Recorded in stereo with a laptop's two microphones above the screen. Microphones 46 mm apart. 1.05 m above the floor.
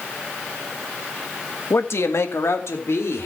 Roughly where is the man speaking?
Left.